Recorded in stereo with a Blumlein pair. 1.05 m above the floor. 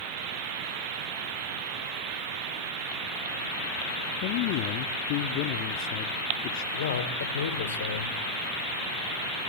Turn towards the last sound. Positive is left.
turn(degrees=65)